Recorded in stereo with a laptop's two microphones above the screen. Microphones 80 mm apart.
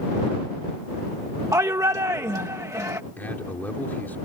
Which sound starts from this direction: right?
A shout, at 1.5 s.